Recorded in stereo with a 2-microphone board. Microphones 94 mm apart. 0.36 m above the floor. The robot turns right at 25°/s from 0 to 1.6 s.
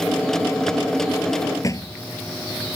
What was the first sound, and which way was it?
A thud, 35° left (ahead or behind).